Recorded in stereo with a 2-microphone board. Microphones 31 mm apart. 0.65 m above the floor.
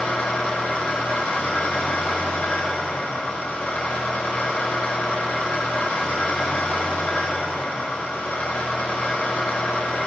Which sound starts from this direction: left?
An engine running, at 0.0 s.